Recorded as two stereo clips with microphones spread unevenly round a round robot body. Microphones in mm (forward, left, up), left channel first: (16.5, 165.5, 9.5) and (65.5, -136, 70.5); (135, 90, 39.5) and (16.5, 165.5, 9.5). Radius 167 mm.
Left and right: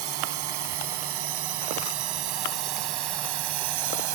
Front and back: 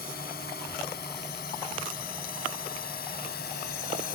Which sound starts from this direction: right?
A drone, at 0.0 s.